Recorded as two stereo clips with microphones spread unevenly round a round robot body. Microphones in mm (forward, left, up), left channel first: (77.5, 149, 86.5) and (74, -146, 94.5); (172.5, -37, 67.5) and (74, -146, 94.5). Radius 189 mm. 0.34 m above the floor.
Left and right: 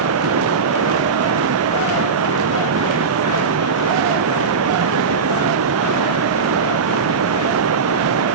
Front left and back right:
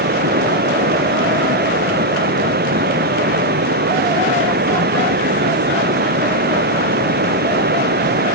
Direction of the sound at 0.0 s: 140° right.